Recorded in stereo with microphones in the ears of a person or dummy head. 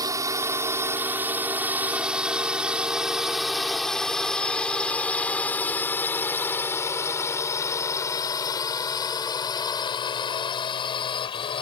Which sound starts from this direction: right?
A drone, at 0.0 s.